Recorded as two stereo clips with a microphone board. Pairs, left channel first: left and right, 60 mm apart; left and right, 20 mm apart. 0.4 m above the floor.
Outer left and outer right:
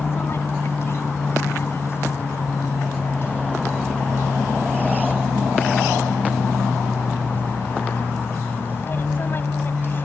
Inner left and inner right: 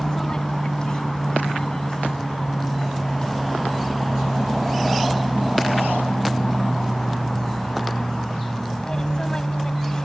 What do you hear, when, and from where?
0.0 s an aircraft: 45° left (ahead or behind); by 10.1 s 40° left (ahead or behind)